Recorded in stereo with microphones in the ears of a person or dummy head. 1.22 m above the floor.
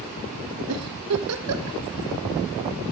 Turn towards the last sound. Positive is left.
turn(degrees=-85)